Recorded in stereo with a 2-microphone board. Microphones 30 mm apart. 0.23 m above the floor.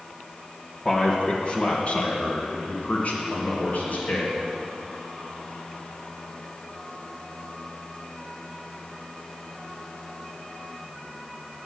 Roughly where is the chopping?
No chopping in this recording.